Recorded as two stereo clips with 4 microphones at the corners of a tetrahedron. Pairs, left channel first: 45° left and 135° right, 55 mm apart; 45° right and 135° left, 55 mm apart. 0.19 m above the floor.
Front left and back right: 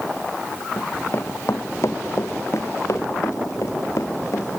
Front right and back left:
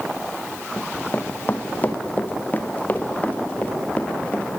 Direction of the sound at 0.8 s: 5° left.